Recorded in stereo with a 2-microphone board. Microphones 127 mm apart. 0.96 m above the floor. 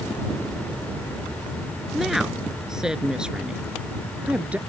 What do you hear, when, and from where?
1.9 s a woman speaking: centre (ahead or behind); by 4.6 s 10° right (ahead or behind)